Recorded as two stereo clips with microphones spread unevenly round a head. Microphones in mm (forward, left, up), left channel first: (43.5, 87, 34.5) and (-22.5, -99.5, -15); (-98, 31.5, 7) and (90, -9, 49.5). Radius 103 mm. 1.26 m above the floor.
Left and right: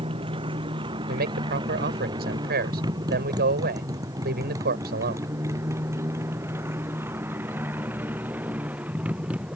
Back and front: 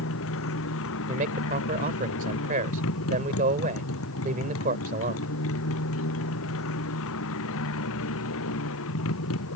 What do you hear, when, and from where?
0.0 s a motorcycle: 175° right; by 9.6 s 165° left
1.1 s a man speaking: 65° right